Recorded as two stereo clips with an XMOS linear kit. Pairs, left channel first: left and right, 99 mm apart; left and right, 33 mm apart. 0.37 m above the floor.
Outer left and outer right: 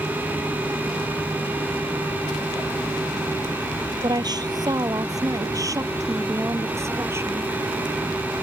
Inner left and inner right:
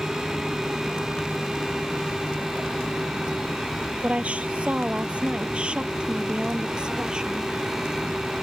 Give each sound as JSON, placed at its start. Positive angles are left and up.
{"t": 4.0, "sound": "a woman speaking", "side_deg": -50}